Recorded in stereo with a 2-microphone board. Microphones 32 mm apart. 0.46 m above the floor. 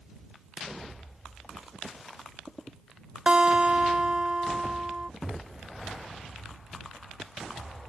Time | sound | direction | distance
3.3 | a guitar | 30° right (ahead or behind) | ?